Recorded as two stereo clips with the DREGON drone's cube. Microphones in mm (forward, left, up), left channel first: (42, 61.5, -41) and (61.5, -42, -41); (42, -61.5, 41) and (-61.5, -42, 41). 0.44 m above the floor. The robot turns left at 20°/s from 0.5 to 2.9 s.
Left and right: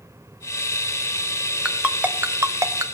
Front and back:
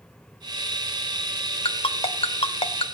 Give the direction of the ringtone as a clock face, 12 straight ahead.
12 o'clock.